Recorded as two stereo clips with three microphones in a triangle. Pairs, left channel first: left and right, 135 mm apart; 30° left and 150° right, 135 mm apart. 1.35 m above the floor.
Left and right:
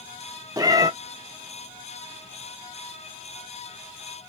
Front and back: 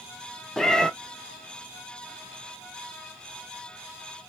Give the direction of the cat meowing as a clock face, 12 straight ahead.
2 o'clock.